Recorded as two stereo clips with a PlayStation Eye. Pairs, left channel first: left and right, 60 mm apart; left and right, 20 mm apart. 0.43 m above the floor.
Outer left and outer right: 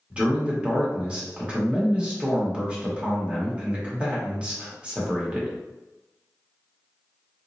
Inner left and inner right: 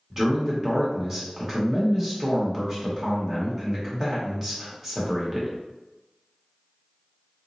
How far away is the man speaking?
About 1.1 m.